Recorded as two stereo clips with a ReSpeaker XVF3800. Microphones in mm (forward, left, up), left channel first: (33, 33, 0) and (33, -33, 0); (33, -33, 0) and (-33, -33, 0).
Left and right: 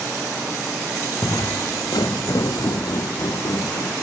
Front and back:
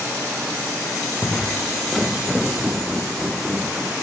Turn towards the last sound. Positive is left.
turn(degrees=100)